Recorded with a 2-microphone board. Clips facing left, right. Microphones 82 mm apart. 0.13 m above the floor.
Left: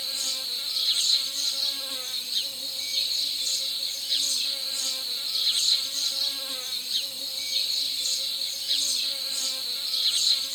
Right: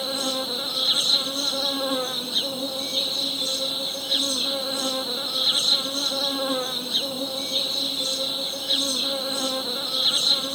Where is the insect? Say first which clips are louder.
Right 15 dB; 55° right (ahead or behind).